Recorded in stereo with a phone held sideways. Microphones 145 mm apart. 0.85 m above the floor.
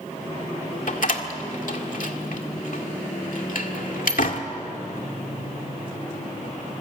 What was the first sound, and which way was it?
A door slam, 65° left (ahead or behind).